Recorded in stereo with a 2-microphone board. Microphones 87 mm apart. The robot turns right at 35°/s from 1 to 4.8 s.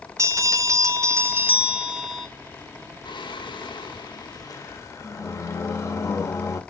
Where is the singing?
80° left, 0.6 m; by 6.6 s 140° left, 0.6 m.